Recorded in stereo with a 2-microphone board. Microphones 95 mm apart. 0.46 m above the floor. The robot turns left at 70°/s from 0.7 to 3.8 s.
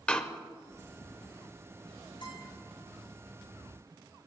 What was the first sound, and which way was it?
A door slam, 15° left (ahead or behind).